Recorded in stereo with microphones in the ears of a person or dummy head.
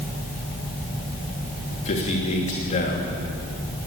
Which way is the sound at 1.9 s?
35° left (ahead or behind).